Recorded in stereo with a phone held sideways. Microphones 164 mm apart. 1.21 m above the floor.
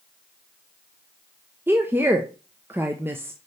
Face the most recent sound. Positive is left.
turn(degrees=-15)  # may be behind; listen again after turning